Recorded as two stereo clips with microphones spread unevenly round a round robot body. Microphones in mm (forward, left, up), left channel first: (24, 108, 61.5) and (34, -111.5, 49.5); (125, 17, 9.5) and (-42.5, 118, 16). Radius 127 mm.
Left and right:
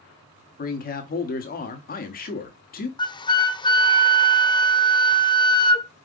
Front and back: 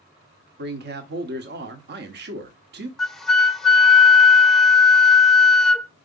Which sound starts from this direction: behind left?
A man speaking, at 0.6 s.